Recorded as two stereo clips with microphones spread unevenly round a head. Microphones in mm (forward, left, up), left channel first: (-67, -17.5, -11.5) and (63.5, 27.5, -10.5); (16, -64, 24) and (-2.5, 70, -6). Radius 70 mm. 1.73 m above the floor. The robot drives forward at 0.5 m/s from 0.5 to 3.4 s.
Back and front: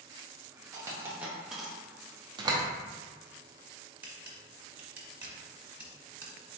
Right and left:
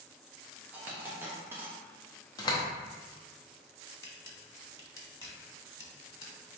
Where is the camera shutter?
50° right, 1.1 m.